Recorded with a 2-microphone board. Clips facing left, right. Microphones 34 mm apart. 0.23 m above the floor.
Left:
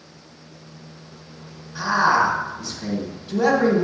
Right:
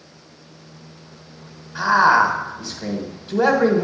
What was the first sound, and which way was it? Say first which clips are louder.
A man speaking: right 4 dB; 30° right (ahead or behind).